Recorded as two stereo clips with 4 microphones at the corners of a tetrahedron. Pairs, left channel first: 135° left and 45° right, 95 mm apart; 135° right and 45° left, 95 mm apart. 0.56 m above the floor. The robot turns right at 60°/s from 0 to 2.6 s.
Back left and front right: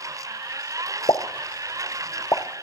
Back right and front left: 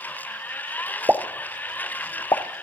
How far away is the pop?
About 0.8 m.